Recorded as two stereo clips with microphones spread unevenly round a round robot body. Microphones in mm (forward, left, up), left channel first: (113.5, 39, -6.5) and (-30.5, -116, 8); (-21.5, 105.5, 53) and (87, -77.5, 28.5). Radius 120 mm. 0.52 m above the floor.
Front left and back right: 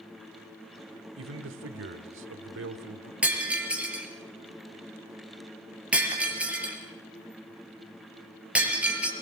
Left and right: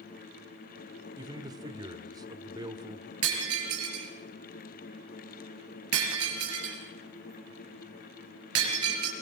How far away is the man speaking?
About 1.7 m.